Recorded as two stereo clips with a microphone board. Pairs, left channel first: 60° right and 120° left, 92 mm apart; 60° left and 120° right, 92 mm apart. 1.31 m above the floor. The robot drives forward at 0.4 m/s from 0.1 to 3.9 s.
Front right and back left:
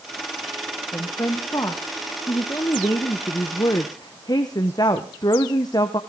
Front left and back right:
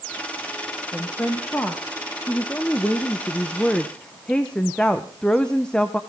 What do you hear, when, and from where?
0.9 s a woman speaking: 10° right, 2.5 m; by 6.0 s 20° right, 1.1 m